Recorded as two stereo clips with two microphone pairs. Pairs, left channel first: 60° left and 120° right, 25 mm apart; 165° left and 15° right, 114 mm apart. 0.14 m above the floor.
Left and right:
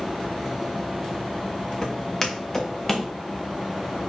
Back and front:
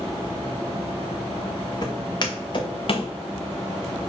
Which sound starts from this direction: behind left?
Footsteps, at 1.8 s.